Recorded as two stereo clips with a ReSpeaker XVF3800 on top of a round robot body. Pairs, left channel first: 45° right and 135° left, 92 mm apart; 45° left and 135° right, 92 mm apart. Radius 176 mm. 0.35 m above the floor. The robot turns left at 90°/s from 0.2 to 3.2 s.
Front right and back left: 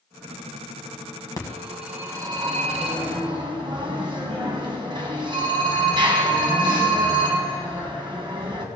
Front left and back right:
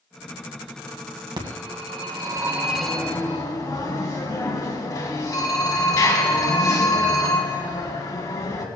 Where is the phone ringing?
95° right, 2 m; by 8.7 s 100° left, 2 m.